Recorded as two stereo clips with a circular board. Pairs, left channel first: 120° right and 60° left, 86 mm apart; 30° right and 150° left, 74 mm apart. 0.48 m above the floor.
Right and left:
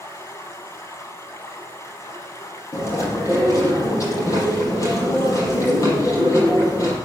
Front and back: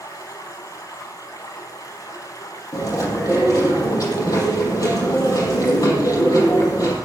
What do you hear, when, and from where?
0.0 s running water: 65° right, 2.5 m
2.7 s chewing: 70° right, 5.5 m